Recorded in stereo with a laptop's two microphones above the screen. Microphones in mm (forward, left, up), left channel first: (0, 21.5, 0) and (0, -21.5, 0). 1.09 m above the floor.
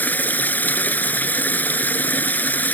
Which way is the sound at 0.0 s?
45° left (ahead or behind).